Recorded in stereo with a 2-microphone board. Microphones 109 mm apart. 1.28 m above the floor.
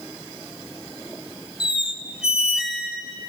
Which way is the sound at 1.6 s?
5° right (ahead or behind).